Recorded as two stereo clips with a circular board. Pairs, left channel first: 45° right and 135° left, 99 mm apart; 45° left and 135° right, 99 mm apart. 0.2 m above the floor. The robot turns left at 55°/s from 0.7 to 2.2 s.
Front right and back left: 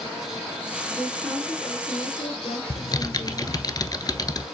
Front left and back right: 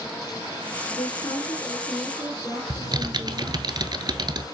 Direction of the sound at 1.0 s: 30° left.